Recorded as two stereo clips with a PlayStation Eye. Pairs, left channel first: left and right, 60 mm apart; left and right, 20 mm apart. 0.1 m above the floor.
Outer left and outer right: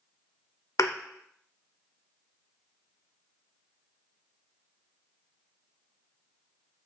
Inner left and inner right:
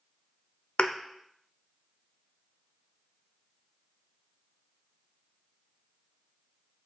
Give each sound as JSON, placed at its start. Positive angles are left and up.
{"t": 0.8, "sound": "a thud", "side_deg": 60, "distance_m": 0.5}